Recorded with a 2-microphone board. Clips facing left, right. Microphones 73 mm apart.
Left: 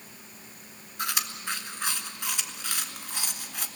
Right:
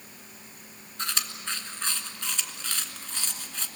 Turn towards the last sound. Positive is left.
turn(degrees=10)  # may be behind; listen again after turning